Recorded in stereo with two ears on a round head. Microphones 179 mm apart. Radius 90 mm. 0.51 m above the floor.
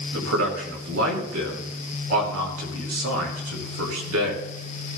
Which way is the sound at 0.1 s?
75° right (ahead or behind).